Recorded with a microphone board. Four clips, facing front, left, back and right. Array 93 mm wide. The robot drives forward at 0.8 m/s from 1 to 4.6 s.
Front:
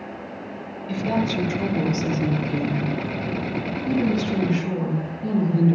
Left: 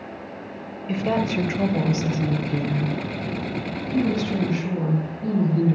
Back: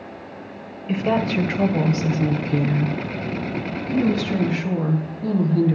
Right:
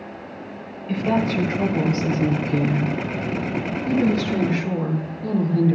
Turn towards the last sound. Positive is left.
turn(degrees=175)